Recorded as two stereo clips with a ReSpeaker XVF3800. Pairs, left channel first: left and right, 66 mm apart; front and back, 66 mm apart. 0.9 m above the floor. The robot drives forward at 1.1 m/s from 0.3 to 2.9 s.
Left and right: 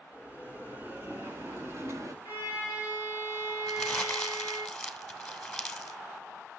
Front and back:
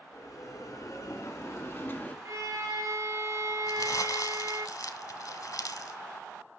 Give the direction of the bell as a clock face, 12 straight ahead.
1 o'clock.